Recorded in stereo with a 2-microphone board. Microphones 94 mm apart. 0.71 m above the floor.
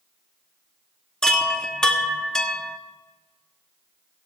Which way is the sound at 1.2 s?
5° left (ahead or behind).